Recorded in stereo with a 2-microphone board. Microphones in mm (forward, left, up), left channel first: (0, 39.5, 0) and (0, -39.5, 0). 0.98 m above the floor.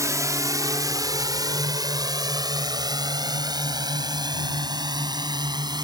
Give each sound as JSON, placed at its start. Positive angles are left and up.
{"t": 0.0, "sound": "a drone", "side_deg": -40}